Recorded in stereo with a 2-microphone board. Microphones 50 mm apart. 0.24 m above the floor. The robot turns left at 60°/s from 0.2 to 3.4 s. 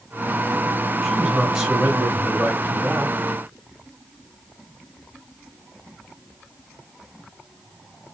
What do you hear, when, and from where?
1.0 s a man speaking: 5° left, 1.5 m; by 3.1 s 125° right, 1.5 m